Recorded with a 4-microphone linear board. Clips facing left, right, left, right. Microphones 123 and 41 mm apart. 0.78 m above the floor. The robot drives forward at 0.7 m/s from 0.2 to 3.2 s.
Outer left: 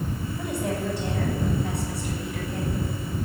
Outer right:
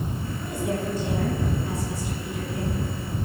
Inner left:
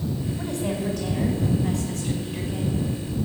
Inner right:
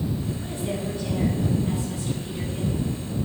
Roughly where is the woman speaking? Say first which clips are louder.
Even, inner left 2 dB; left.